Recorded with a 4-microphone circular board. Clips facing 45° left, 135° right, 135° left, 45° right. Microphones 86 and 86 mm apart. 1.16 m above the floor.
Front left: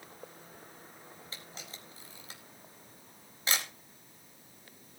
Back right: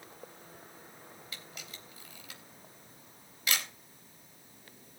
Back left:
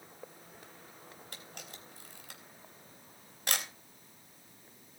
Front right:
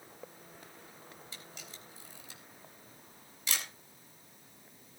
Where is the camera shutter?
100° left, 3.5 m.